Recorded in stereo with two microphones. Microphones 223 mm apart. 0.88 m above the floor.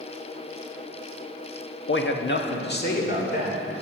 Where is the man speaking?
60° left (ahead or behind), 0.9 m; by 3.7 s 40° left (ahead or behind), 2.5 m.